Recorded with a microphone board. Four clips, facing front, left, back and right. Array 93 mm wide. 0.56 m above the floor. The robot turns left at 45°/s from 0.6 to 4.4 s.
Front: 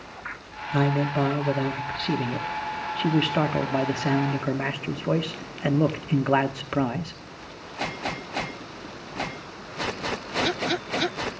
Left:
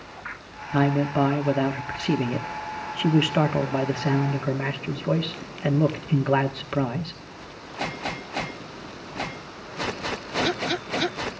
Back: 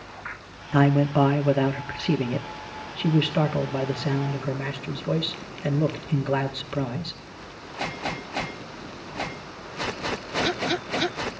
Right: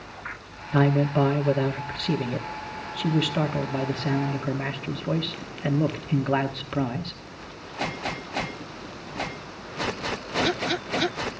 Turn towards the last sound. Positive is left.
turn(degrees=20)